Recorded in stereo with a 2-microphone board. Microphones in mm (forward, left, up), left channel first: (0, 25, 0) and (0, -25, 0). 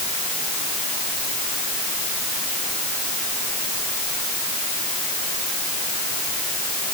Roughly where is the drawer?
I don't hear a drawer.